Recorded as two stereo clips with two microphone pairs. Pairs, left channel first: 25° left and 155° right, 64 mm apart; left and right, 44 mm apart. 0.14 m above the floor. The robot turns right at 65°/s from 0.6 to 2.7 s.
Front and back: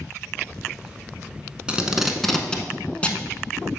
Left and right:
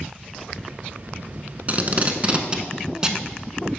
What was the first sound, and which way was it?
Tape being pulled, 95° right.